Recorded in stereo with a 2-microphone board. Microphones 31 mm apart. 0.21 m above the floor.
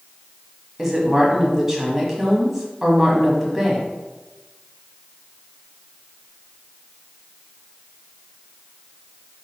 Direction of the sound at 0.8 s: 15° right (ahead or behind).